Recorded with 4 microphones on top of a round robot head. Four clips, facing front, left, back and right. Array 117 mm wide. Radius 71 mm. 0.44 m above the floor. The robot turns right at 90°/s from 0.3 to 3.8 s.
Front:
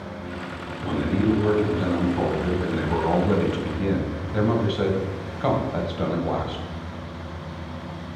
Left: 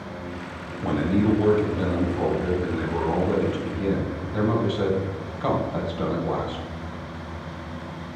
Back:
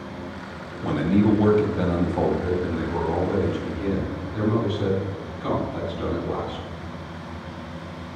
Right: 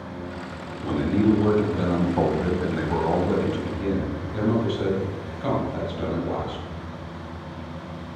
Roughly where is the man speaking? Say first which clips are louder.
Right 1 dB, back 2 dB; behind left.